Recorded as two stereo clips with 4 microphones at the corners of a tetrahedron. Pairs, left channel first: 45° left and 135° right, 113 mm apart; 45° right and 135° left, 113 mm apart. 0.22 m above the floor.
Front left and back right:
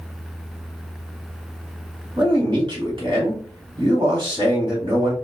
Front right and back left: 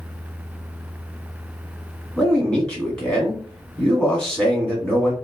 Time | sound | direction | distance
2.2 | a man speaking | 120° right | 1.4 m